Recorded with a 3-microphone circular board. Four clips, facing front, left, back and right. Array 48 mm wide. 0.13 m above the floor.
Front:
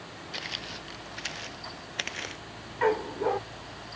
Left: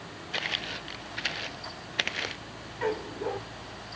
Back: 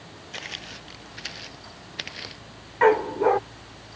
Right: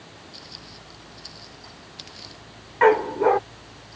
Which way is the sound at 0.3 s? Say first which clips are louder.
Left 12 dB, back 1 dB; 95° left.